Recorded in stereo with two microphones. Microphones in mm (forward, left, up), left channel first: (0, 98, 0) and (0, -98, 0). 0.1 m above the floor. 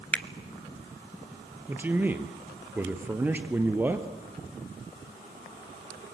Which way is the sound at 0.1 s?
5° left (ahead or behind).